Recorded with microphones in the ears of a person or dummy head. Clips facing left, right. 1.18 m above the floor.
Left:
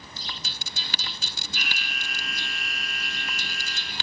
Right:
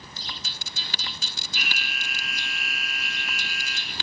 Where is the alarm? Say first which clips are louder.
Right 1 dB; 5° right (ahead or behind), 2.5 m.